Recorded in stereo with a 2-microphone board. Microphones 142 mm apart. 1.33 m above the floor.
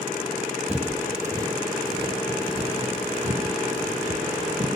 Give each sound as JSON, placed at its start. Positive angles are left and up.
{"t": 0.7, "sound": "footsteps", "side_deg": -10, "distance_m": 1.5}